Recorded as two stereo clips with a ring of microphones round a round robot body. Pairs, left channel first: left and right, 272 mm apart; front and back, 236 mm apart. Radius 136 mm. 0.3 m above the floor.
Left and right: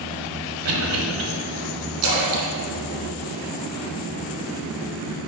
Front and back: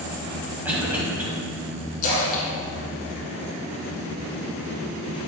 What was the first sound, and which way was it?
A cough, 100° right.